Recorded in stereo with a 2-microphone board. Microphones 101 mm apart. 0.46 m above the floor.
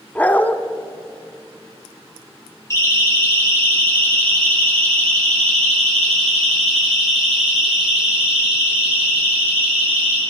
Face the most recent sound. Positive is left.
turn(degrees=-15)  # may be behind; listen again after turning